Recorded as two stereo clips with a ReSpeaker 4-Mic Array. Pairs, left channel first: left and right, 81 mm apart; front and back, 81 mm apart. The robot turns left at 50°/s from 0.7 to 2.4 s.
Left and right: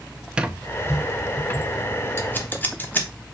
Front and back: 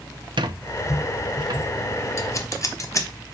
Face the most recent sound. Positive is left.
turn(degrees=30)